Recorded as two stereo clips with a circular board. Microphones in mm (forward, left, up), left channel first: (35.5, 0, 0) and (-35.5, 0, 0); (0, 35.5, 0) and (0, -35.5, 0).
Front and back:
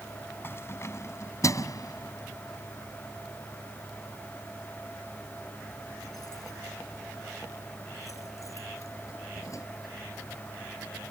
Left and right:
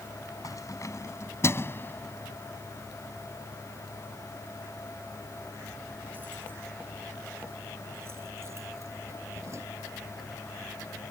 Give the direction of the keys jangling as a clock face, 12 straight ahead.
10 o'clock.